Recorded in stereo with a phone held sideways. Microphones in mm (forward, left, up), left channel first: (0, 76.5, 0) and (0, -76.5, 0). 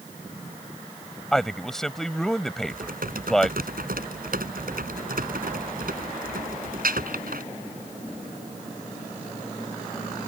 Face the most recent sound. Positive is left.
turn(degrees=-75)  # may be behind; listen again after turning